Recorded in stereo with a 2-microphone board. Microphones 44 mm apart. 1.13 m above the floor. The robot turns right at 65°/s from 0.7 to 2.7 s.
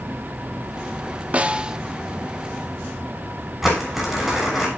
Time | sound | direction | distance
1.3 | a snare drum | 30° right (ahead or behind) | 0.7 m
3.6 | crumpling | 5° right (ahead or behind) | 7 m